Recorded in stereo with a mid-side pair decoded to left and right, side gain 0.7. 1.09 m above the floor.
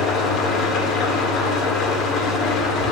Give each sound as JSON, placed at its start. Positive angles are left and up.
{"t": 0.0, "sound": "an engine running", "azimuth_deg": 45, "distance_m": 1.9}